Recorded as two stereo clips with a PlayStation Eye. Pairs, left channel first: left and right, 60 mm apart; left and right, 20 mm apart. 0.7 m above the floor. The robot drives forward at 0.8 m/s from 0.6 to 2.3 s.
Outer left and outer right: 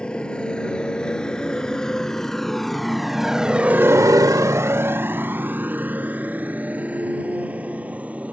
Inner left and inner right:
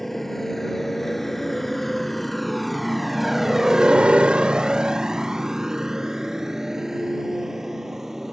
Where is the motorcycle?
15° left (ahead or behind); by 8.3 s 20° right (ahead or behind).